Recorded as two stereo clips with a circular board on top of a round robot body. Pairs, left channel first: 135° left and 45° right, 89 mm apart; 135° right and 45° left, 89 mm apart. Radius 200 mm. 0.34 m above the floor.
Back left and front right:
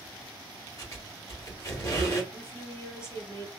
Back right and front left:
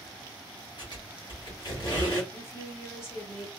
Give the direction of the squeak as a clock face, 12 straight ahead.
6 o'clock.